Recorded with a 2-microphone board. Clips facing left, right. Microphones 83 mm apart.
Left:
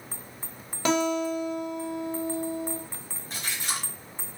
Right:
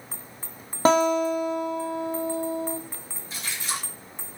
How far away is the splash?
About 1.2 m.